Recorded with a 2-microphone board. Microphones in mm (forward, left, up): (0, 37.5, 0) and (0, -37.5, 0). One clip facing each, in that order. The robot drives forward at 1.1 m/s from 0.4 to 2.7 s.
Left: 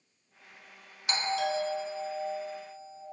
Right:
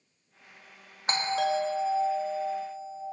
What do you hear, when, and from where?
1.1 s a doorbell: 40° right (ahead or behind), 0.7 m; by 3.0 s 15° right (ahead or behind), 1.6 m